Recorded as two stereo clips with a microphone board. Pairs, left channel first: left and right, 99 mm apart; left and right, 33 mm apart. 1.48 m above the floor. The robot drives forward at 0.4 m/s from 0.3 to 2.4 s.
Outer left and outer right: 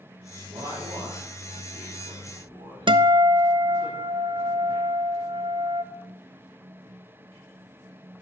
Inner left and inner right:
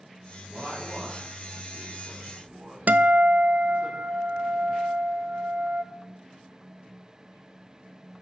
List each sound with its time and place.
0.5 s a man speaking: 60° right (ahead or behind), 4.5 m; by 3.9 s 65° right (ahead or behind), 4 m
2.9 s a guitar: 55° right (ahead or behind), 0.5 m